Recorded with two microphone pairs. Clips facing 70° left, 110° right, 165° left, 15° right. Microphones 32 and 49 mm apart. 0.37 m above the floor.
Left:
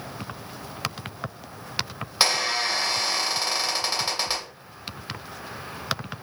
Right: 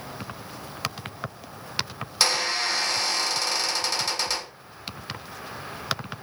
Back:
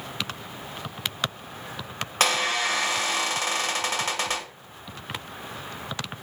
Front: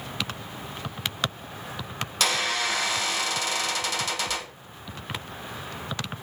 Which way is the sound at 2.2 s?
130° left.